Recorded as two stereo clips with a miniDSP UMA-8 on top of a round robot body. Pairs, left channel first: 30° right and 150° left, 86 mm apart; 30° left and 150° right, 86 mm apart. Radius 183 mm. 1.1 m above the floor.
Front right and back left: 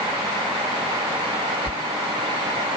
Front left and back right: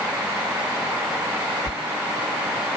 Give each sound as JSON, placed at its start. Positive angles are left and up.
{"t": 1.7, "sound": "a sliding door", "azimuth_deg": 80}